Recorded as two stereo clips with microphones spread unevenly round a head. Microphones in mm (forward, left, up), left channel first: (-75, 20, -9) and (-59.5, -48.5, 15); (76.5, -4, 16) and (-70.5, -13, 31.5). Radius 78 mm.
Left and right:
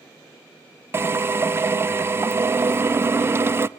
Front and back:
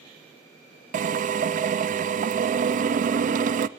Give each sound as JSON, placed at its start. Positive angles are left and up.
{"t": 0.9, "sound": "a drill", "azimuth_deg": -140, "distance_m": 0.8}